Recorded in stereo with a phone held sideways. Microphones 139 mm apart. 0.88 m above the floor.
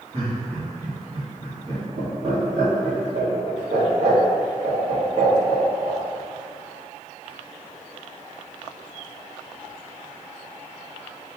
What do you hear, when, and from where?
0.1 s laughter: 50° right (ahead or behind), 1.4 m